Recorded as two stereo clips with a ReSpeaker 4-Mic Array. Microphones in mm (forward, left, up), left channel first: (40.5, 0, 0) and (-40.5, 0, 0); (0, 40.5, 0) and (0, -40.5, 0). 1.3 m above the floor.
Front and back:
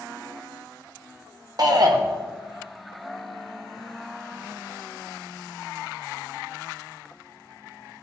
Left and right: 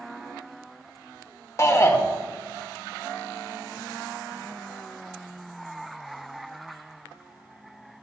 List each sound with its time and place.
1.6 s a shout: 140° left, 1.3 m